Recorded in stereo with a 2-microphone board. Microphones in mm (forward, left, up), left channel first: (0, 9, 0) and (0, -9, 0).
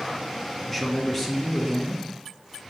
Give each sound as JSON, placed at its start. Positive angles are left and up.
{"t": 0.7, "sound": "a man speaking", "side_deg": 25, "distance_m": 1.2}